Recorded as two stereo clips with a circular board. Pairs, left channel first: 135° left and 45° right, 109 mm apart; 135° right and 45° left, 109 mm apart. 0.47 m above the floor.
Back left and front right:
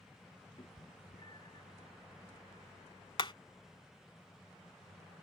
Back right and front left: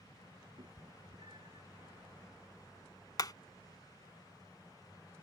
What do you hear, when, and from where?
0.6 s a cat meowing: 90° left; by 1.6 s 85° left
3.2 s hammering: 175° left